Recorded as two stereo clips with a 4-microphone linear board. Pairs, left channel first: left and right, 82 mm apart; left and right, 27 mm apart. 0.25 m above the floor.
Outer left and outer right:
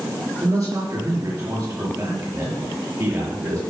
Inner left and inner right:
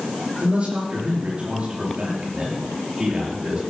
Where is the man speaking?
45° right (ahead or behind), 5.5 m.